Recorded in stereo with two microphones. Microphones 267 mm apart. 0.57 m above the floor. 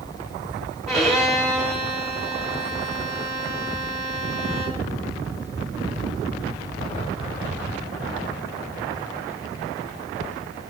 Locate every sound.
0.9 s a violin: centre (ahead or behind), 1.4 m